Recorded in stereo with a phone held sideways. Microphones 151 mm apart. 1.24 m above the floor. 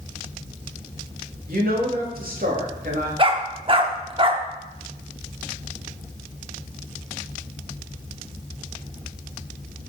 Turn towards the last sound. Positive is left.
turn(degrees=-35)  # may be behind; listen again after turning